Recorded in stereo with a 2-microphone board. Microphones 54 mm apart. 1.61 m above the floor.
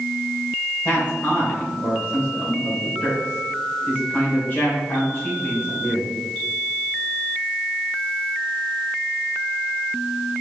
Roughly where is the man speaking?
Left.